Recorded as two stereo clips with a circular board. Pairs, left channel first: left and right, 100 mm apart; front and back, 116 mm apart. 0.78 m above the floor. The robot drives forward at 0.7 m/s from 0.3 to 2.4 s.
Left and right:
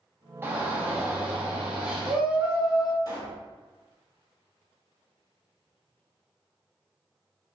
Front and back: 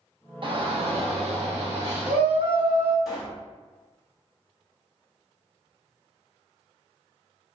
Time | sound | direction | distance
0.4 | a shout | 150° right | 0.9 m
3.0 | a pop | 90° left | 1.4 m